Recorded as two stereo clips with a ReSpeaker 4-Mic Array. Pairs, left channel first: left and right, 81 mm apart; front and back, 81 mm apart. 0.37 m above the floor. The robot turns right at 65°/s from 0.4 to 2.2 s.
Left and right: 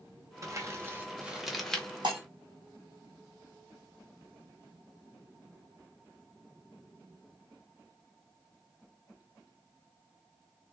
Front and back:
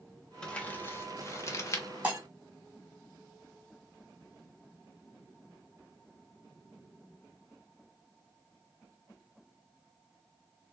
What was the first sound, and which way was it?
Crumpling, 70° right.